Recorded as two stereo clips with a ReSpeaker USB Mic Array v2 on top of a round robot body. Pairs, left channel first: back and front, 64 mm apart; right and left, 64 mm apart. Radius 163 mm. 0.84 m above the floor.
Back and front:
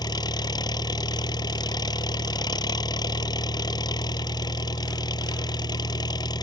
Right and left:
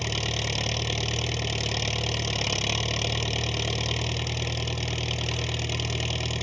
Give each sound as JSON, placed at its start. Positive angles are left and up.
{"t": 0.0, "sound": "an engine running", "azimuth_deg": 180}